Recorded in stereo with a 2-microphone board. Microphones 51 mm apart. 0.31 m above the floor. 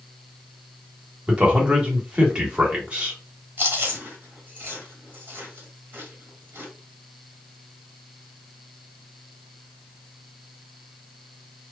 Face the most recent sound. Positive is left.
turn(degrees=-40)  # may be behind; listen again after turning